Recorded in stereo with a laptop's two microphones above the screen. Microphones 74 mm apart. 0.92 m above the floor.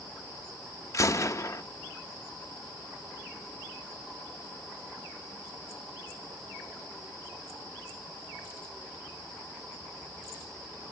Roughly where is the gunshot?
Left.